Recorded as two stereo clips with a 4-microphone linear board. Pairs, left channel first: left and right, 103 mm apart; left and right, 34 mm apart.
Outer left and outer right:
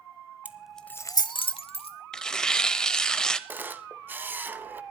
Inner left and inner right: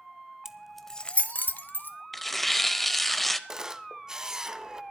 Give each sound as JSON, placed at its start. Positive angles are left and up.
{"t": 0.5, "sound": "keys jangling", "side_deg": -15, "distance_m": 1.0}
{"t": 2.1, "sound": "tearing paper", "side_deg": 5, "distance_m": 0.8}
{"t": 3.5, "sound": "a camera shutter", "side_deg": -20, "distance_m": 0.8}